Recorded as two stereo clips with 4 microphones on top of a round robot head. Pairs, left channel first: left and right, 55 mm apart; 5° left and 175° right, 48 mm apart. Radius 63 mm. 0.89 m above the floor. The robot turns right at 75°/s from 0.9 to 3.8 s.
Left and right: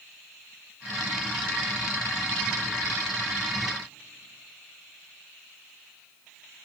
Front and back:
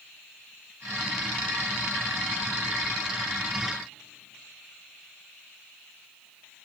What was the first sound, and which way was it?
Only background noise.